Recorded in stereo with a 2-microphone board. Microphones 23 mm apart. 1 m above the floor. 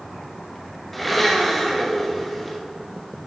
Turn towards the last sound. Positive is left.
turn(degrees=5)  # may be behind; listen again after turning